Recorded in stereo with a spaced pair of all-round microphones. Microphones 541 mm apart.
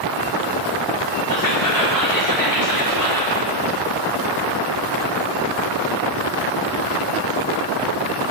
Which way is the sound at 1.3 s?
75° left (ahead or behind).